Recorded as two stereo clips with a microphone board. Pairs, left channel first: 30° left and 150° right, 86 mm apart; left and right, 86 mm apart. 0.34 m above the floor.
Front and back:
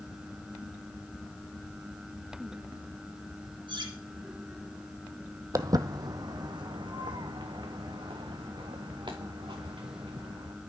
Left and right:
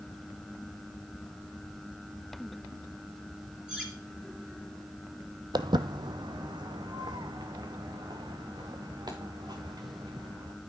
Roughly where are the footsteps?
Right.